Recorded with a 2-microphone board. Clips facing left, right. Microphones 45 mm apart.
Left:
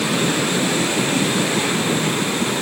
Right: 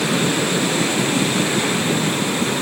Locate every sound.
Only background noise.